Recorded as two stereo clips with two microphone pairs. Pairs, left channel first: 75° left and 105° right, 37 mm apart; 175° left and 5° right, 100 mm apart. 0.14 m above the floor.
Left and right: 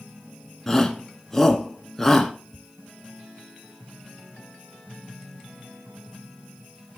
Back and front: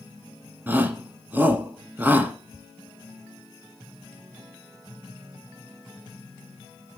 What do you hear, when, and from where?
0.7 s a shout: 20° left, 1.1 m
2.5 s ticking: 95° left, 1.7 m